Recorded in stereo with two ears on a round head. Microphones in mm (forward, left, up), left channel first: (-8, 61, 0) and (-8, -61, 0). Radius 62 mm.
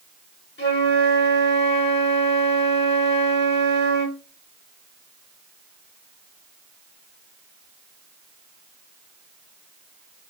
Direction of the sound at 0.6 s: 80° left.